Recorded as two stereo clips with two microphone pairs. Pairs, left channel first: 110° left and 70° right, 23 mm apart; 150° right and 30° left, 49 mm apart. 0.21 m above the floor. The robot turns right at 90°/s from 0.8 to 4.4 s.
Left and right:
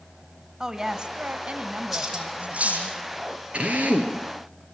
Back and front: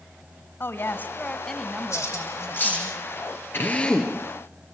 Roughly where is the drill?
Right.